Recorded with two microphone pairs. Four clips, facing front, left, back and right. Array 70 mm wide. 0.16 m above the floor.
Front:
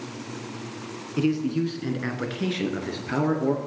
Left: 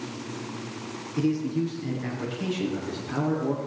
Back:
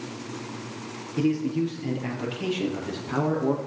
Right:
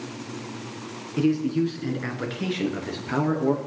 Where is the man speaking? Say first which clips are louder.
Right 3 dB, even; 35° right, 2.0 m; by 3.6 s 40° right, 3.5 m.